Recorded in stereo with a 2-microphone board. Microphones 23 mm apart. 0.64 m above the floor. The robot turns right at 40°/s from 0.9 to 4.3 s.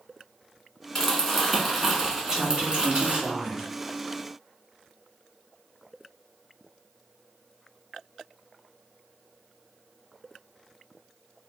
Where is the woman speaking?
165° right, 1.5 m; by 3.6 s 110° right, 1.5 m.